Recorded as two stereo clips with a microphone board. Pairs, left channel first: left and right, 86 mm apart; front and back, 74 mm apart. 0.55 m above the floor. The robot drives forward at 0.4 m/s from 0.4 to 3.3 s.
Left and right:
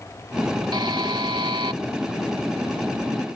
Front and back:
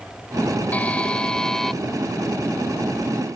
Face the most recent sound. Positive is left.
turn(degrees=-110)